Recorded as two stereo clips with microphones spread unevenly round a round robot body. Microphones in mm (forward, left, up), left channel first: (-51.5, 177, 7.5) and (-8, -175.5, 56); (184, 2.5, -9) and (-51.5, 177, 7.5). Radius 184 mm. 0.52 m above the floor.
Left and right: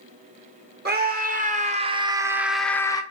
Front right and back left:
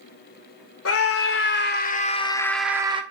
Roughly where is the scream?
Ahead.